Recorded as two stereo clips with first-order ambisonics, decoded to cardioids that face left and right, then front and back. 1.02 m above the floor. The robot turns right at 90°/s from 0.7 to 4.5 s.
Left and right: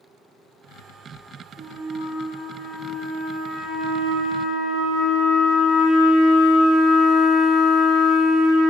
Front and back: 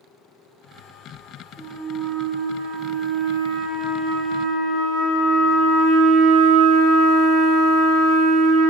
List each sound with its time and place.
1.6 s a flute: 50° left, 0.9 m; by 8.7 s 45° right, 0.9 m